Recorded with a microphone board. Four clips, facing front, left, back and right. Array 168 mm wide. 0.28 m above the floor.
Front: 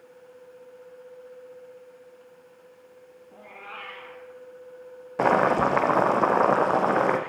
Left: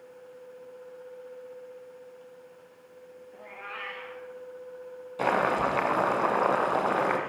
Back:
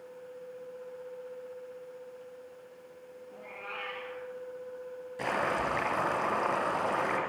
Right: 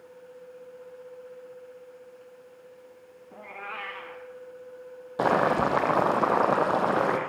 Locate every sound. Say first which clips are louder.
3.3 s a cat meowing: right 4 dB, front 1 dB; 80° right, 7 m
5.2 s boiling: right 3 dB, front 11 dB; 30° right, 5 m